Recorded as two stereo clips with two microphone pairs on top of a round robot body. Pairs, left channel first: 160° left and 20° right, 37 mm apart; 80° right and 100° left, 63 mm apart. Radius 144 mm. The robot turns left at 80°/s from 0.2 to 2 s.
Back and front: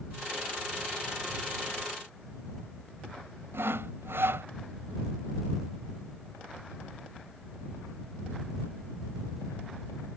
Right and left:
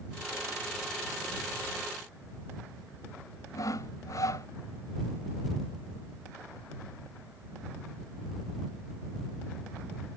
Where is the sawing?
40° right.